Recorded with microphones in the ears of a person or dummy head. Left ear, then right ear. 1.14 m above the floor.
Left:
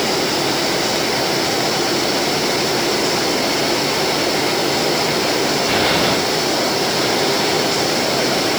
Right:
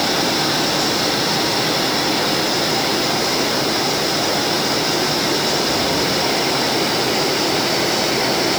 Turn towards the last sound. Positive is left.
No sound to turn to.